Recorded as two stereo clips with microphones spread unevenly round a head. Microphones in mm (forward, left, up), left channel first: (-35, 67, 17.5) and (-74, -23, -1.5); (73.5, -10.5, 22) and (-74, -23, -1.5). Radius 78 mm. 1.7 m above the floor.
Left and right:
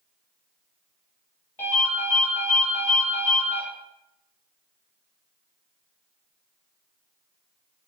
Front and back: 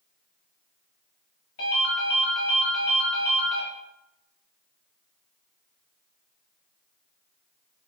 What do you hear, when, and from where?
1.6 s a ringtone: 5° right, 1.3 m